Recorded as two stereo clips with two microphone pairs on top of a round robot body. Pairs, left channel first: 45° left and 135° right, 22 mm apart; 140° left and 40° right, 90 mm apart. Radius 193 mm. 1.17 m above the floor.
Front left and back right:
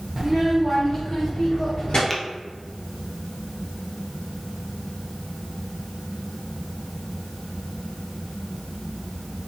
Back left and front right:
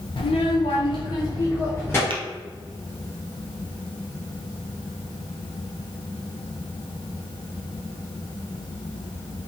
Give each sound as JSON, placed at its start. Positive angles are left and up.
{"t": 0.2, "sound": "a child speaking", "azimuth_deg": 160, "distance_m": 0.6}
{"t": 2.1, "sound": "tapping", "azimuth_deg": -35, "distance_m": 0.9}